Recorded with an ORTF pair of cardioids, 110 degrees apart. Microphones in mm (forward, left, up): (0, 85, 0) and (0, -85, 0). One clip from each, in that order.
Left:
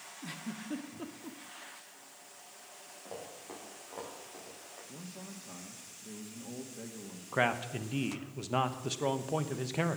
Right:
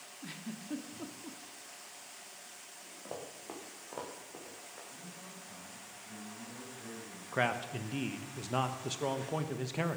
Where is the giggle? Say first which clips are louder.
Left 2 dB; 10° left, 1.3 m.